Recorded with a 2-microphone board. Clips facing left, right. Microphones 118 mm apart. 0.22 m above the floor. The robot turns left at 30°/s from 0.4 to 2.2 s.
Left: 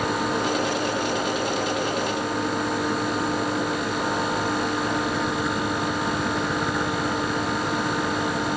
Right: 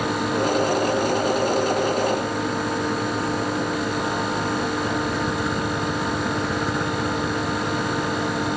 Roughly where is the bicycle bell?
No bicycle bell in this recording.